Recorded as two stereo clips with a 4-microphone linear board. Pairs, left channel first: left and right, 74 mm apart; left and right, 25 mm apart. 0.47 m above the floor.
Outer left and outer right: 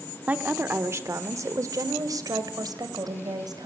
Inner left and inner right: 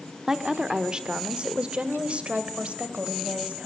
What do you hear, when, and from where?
0.3 s a woman speaking: 20° right (ahead or behind), 1.0 m; by 3.7 s 60° right (ahead or behind), 2.5 m